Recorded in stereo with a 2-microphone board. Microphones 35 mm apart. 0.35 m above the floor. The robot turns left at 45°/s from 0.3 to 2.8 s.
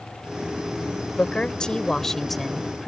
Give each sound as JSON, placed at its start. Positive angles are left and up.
{"t": 1.2, "sound": "a woman speaking", "azimuth_deg": 60}